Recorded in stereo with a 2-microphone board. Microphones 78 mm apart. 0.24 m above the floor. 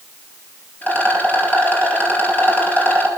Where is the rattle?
20° left (ahead or behind), 2.5 m.